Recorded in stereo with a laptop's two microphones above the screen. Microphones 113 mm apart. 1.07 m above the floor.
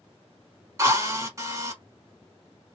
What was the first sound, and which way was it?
A drill, 30° right (ahead or behind).